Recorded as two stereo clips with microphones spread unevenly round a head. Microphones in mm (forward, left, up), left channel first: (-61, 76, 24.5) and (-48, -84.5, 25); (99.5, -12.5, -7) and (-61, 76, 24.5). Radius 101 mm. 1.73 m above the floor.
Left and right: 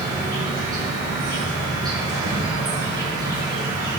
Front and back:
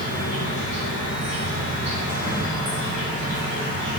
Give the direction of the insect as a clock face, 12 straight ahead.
5 o'clock.